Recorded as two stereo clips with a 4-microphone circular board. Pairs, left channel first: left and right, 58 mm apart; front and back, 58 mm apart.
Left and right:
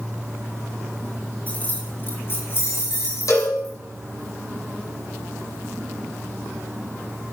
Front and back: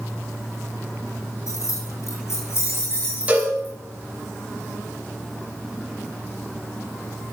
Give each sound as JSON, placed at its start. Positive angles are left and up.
{"t": 1.5, "sound": "keys jangling", "azimuth_deg": 30, "distance_m": 5.0}
{"t": 3.3, "sound": "a cowbell", "azimuth_deg": 110, "distance_m": 7.0}